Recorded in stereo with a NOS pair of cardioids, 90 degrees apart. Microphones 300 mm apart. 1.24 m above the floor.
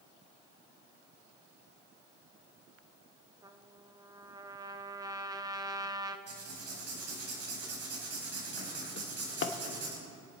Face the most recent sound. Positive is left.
turn(degrees=40)